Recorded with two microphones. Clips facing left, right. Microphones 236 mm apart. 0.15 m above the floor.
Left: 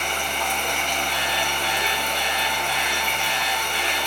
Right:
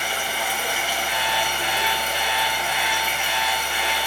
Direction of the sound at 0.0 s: 5° right (ahead or behind).